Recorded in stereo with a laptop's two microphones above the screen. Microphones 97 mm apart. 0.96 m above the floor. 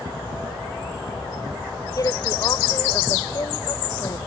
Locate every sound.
2.0 s a woman speaking: 40° left (ahead or behind)